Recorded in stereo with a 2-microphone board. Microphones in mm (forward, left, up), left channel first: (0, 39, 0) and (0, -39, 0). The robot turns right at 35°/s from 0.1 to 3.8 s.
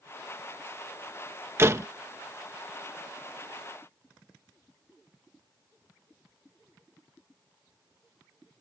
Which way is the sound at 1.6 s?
30° right (ahead or behind).